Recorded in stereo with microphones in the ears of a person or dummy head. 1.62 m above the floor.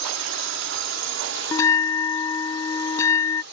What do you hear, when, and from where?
0.0 s a drone: 70° right (ahead or behind); by 3.5 s 60° right (ahead or behind)
1.5 s a bell: 15° left (ahead or behind)